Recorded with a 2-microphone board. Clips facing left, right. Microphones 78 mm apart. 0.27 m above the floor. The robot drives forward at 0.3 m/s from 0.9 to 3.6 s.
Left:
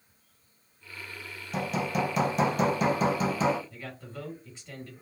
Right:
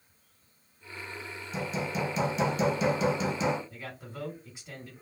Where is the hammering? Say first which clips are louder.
Left 3 dB; 60° left (ahead or behind), 0.8 m; by 3.6 s 40° left (ahead or behind), 1.0 m.